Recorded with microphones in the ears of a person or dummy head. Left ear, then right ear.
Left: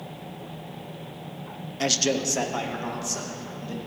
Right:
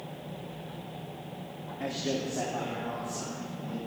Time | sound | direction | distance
1.8 | a man speaking | 85° left | 0.6 m